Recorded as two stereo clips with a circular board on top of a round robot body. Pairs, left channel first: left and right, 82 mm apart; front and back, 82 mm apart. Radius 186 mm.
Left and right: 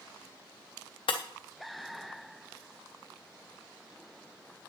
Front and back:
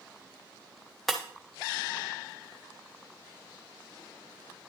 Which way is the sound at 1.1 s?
90° left.